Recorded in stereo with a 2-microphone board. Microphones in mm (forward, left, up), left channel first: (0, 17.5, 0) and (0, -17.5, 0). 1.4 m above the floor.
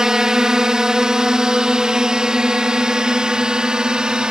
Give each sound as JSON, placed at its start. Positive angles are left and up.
{"t": 0.0, "sound": "a drone", "side_deg": -15}